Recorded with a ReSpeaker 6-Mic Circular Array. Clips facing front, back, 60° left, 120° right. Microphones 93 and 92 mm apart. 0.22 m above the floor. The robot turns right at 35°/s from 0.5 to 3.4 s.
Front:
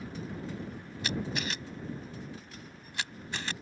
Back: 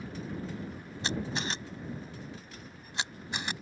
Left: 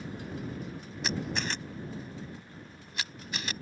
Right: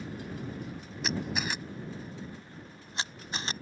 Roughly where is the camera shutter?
Behind left.